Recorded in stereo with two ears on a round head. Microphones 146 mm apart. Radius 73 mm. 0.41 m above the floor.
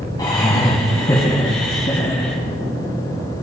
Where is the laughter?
30° left (ahead or behind), 2.5 m; by 2.4 s 35° left (ahead or behind), 3.5 m.